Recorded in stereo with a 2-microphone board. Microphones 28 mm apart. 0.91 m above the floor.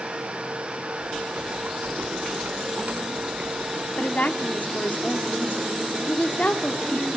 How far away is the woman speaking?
About 1.8 m.